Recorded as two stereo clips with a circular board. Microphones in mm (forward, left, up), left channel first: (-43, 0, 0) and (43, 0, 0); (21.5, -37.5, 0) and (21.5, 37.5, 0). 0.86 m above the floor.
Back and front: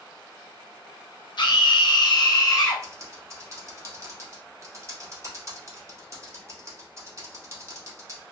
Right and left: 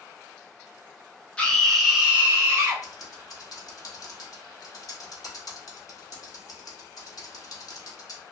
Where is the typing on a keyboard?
55° right, 0.8 m.